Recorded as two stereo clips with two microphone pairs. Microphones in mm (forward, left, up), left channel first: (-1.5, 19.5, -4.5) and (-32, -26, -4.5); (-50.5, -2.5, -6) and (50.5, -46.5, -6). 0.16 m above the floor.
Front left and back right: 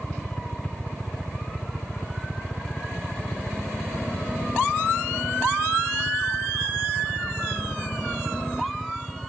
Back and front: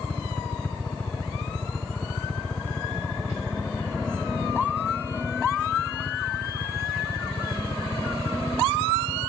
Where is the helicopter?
110° left; by 9.3 s 135° left.